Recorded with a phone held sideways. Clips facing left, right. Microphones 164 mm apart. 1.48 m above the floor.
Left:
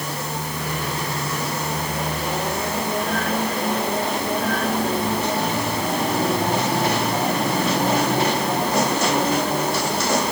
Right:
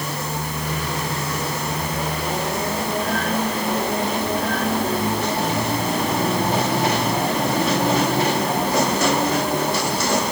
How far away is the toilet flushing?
No toilet flushing in this recording.